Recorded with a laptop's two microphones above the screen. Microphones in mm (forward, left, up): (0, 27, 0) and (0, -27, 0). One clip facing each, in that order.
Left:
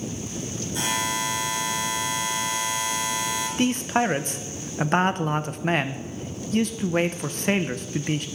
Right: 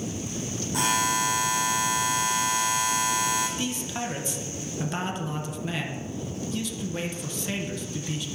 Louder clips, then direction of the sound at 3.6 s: Left 9 dB; 55° left (ahead or behind).